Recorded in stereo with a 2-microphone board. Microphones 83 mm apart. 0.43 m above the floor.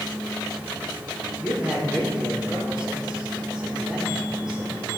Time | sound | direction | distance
1.4 | a man speaking | 15° right (ahead or behind) | 4 m